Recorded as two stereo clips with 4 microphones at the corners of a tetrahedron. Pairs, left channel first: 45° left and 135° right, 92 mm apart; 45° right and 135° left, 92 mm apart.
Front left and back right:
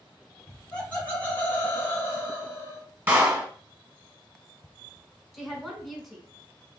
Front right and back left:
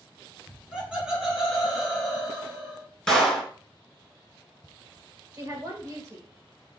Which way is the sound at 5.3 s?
135° left.